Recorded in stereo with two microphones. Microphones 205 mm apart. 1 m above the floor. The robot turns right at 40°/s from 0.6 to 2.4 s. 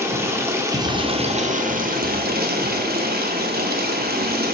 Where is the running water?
160° right, 0.7 m; by 4.5 s 90° right, 0.7 m.